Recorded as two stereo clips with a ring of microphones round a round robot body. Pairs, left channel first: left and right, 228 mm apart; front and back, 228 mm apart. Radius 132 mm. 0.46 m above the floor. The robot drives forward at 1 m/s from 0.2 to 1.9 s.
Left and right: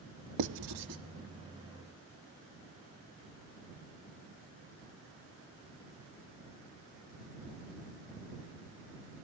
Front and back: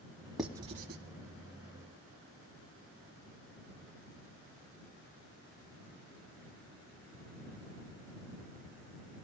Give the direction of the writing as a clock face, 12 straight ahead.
3 o'clock.